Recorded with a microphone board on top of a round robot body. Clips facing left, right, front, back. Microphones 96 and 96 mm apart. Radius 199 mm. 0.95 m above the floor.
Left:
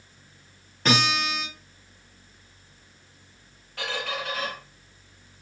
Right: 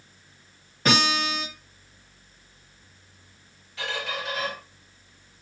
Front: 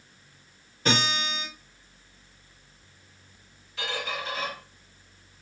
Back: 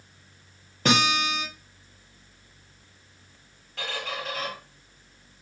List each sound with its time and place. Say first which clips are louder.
0.8 s a guitar: right 1 dB, back 4 dB; 175° right, 0.8 m
3.8 s a squeak: even, front 1 dB; 140° left, 1.5 m